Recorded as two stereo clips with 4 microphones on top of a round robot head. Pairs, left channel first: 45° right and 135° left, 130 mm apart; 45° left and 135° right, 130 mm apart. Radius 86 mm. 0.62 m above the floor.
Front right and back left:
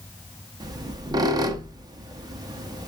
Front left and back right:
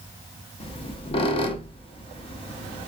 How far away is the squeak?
About 0.5 m.